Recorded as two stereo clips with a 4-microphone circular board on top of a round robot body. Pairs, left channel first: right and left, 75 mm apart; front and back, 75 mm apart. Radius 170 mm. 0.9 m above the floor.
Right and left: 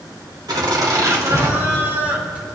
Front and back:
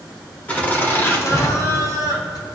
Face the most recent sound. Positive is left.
turn(degrees=20)